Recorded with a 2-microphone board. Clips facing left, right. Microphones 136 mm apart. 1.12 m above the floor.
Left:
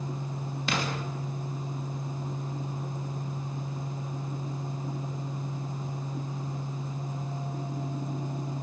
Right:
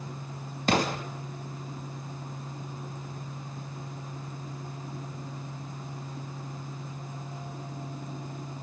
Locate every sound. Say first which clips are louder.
0.7 s an explosion: right 6 dB; 45° right (ahead or behind), 2.5 m